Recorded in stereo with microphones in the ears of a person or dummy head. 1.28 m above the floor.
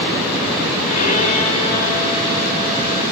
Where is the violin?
40° left (ahead or behind), 2.5 m.